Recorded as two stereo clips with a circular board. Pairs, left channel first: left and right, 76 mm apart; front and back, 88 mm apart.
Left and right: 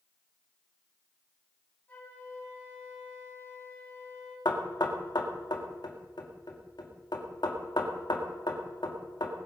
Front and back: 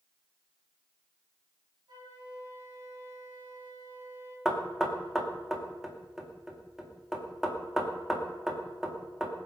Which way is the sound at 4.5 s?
95° left.